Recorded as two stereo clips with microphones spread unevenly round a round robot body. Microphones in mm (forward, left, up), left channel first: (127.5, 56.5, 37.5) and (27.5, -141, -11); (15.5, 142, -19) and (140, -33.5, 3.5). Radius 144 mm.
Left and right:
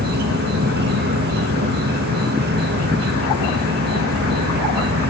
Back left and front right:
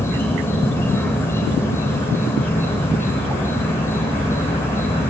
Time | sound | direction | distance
0.0 | an insect | 155° right | 0.8 m